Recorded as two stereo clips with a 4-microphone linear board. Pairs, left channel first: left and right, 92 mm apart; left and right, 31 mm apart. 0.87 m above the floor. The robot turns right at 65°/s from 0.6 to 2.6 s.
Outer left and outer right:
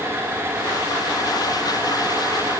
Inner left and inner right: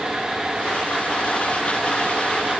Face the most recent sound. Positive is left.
No sound to turn to.